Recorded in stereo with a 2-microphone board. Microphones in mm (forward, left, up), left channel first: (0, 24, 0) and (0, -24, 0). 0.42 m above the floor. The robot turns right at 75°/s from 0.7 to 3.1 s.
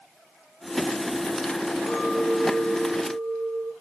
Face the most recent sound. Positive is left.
turn(degrees=-75)